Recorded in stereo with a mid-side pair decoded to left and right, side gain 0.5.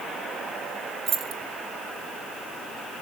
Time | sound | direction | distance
1.1 | keys jangling | 50° right | 2.5 m